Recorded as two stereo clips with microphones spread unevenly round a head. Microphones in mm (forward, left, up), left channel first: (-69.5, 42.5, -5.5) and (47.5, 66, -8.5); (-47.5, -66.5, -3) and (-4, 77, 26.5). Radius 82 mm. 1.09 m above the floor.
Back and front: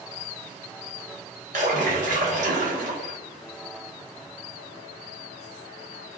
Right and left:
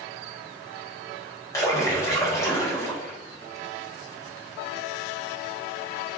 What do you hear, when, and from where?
1.5 s a splash: 35° right, 1.1 m